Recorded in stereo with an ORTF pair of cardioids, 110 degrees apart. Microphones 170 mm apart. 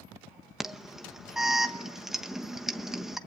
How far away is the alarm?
About 1.1 m.